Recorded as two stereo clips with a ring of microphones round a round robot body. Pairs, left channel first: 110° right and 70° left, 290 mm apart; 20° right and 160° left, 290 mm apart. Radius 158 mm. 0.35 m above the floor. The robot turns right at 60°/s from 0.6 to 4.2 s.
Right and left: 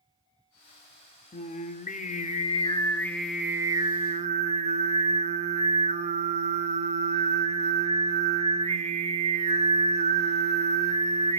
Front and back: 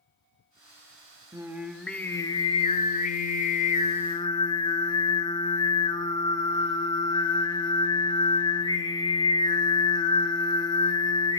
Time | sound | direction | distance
1.3 | singing | 140° right | 0.7 m